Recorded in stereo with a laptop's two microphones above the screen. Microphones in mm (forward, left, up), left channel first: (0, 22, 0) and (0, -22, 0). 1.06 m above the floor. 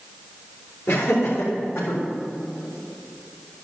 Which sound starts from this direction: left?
Laughter, at 0.9 s.